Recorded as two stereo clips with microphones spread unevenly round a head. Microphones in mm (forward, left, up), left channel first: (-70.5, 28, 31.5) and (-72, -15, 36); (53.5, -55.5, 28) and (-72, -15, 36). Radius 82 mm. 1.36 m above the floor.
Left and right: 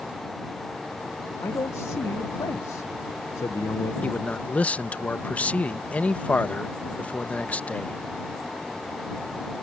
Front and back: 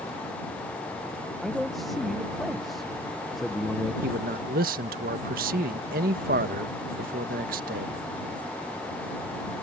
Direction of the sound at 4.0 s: 145° left.